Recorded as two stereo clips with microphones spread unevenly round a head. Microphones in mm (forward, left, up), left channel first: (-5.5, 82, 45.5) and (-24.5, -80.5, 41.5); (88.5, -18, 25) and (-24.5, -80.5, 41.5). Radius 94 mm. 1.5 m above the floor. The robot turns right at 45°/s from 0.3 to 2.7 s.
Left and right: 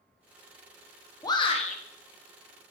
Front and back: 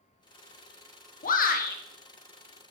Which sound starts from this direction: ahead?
A shout, at 1.2 s.